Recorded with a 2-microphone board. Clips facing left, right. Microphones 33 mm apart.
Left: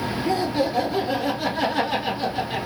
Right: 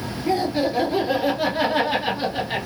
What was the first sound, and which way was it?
Laughter, 10° right (ahead or behind).